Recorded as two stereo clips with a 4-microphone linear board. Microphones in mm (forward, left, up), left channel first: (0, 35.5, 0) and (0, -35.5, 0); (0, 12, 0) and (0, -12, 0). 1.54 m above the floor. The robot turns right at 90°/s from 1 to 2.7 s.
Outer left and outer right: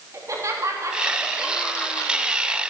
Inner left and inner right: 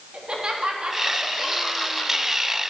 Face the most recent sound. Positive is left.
turn(degrees=105)